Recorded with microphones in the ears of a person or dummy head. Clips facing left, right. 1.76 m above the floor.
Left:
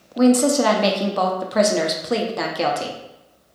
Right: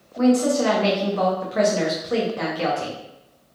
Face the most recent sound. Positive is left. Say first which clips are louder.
# left 2 dB
turn(degrees=65)  # may be behind; listen again after turning